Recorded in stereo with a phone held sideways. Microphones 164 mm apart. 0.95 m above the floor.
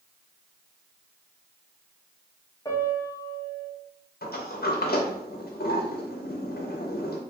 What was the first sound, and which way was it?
A piano, 20° left (ahead or behind).